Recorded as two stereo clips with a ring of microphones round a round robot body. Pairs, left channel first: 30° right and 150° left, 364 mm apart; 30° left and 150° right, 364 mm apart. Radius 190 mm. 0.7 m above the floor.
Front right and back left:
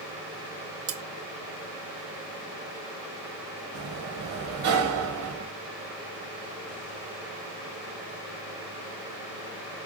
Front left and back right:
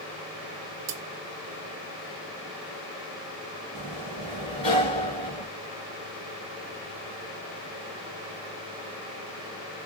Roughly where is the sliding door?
Left.